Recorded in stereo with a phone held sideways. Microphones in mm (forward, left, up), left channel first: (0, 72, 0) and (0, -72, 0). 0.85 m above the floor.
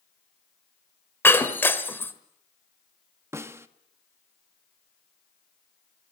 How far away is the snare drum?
About 0.9 m.